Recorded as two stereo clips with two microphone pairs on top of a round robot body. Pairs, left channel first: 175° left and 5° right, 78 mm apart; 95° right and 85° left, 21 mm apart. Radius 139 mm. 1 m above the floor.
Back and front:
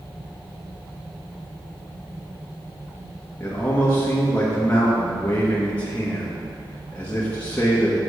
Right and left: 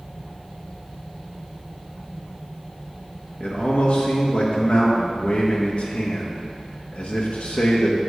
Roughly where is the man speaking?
Right.